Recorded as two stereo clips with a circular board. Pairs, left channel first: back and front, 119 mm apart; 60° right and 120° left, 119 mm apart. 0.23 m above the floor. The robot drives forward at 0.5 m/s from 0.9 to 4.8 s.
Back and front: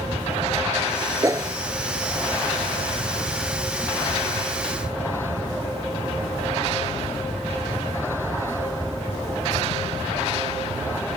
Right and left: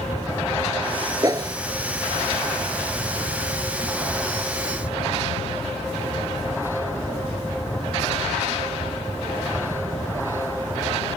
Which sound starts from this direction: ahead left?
A whoosh, at 1.2 s.